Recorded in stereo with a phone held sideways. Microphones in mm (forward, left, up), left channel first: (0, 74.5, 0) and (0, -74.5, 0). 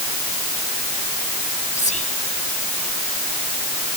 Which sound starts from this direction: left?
Whispering, at 1.8 s.